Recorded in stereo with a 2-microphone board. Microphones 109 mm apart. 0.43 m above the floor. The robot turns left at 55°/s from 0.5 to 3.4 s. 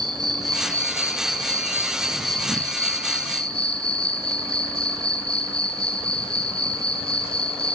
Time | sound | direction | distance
0.0 | an insect | 135° right | 1.7 m